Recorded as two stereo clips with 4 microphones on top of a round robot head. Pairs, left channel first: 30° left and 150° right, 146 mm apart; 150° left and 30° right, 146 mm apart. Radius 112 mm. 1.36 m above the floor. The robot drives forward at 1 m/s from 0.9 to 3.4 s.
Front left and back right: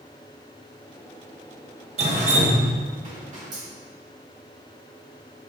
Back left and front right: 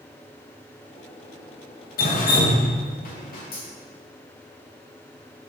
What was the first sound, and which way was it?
Dripping, 170° left.